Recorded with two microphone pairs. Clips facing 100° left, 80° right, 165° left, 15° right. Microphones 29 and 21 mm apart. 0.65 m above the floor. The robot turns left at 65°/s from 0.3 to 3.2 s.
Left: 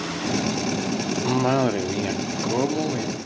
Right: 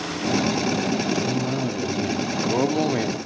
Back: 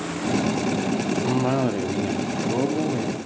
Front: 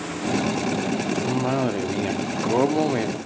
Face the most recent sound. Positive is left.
turn(degrees=-35)